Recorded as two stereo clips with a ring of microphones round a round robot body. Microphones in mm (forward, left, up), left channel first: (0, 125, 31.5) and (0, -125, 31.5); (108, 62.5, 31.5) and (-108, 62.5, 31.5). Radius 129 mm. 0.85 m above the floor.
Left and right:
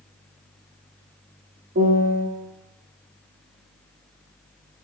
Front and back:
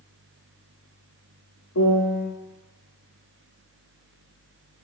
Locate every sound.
1.8 s a piano: 35° right, 0.7 m